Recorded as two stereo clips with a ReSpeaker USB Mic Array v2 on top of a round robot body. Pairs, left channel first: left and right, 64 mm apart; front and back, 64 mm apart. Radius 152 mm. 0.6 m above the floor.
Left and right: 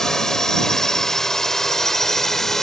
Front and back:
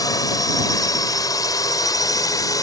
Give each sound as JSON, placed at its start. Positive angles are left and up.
{"t": 0.0, "sound": "a drone", "azimuth_deg": 5}